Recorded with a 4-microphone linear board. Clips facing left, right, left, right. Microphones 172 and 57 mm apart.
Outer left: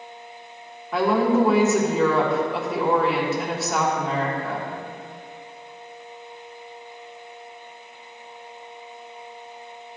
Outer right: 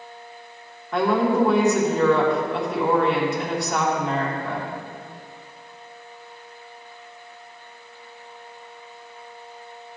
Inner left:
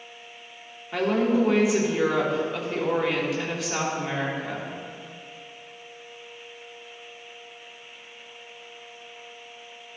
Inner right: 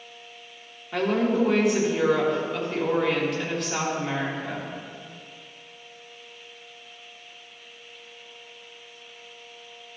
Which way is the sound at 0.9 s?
Centre (ahead or behind).